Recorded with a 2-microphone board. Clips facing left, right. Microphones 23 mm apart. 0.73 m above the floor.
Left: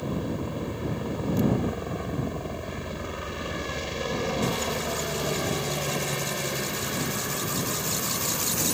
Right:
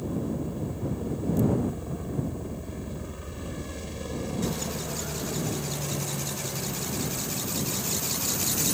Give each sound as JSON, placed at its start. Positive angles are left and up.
{"t": 0.0, "sound": "a helicopter", "side_deg": 40}